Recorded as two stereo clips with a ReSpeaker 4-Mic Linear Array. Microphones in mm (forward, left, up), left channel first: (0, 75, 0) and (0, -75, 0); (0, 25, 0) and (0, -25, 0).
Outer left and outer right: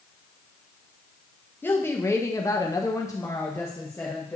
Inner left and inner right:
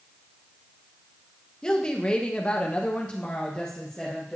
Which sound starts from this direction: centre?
A woman speaking, at 1.6 s.